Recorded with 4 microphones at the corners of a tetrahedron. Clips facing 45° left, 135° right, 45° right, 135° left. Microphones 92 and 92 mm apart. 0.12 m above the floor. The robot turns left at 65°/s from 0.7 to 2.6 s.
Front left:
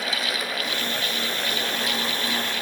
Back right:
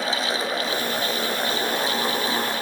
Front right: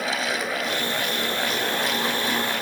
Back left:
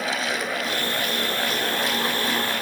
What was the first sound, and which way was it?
Only background noise.